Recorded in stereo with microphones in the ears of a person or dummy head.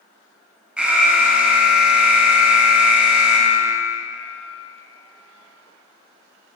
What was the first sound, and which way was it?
An alarm, 5° right (ahead or behind).